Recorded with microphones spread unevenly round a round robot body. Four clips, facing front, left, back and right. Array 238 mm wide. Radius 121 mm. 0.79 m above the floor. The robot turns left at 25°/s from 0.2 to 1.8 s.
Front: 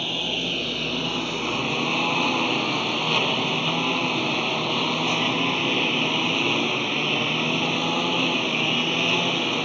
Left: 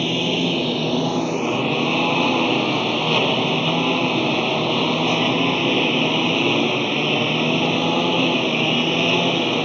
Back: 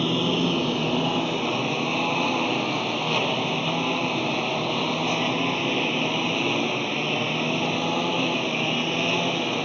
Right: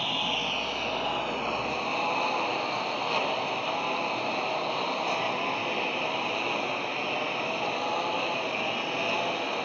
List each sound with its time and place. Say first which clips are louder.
0.0 s a lawn mower: left 10 dB, back 7 dB; 125° left; by 9.7 s 85° left